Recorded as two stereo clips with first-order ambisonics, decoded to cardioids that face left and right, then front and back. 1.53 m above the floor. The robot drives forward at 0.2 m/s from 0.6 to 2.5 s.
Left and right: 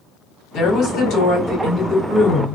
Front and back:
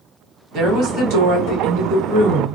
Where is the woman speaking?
135° left, 1.2 m; by 2.5 s 145° left, 1.4 m.